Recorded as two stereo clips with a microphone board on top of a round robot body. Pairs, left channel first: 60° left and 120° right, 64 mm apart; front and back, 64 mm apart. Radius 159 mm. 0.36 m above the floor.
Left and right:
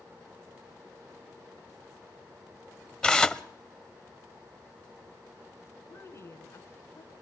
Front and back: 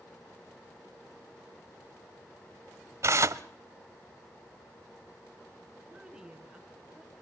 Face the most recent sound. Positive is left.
turn(degrees=100)